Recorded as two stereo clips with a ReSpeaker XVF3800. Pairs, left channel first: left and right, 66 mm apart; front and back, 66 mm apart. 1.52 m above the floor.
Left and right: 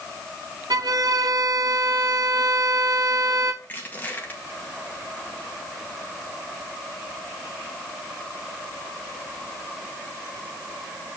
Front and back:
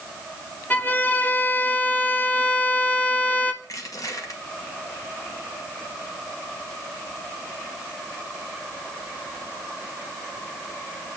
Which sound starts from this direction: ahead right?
A violin, at 0.7 s.